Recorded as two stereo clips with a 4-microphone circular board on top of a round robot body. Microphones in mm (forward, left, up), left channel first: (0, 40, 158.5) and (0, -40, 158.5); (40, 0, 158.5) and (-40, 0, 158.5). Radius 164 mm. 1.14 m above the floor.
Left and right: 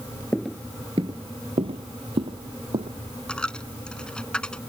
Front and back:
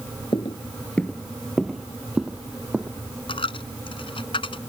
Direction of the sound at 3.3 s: 10° left.